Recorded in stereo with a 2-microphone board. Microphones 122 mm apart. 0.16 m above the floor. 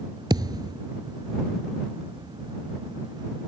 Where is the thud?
35° right (ahead or behind).